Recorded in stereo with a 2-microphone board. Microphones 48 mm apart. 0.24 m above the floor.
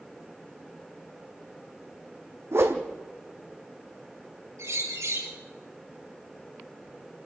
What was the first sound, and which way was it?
A whoosh, 65° right (ahead or behind).